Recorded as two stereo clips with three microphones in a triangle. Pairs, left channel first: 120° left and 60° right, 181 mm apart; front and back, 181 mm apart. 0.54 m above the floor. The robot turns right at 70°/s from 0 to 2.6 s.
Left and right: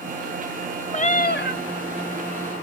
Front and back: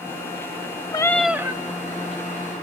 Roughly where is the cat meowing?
Ahead left.